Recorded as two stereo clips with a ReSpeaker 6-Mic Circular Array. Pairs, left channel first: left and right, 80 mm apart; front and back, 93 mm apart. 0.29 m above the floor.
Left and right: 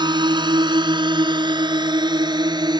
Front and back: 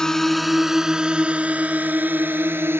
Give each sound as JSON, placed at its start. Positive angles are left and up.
{"t": 0.0, "sound": "a drone", "azimuth_deg": -85}